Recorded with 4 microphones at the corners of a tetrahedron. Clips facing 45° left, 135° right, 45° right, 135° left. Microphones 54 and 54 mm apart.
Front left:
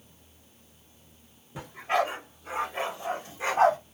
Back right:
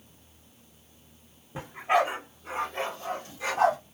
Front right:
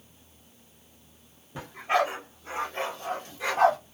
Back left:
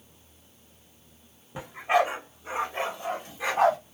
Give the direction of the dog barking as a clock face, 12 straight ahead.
6 o'clock.